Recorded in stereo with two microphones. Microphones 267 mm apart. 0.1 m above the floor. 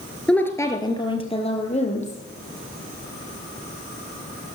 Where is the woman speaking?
5° left (ahead or behind), 1.3 m; by 2.2 s 25° left (ahead or behind), 3 m.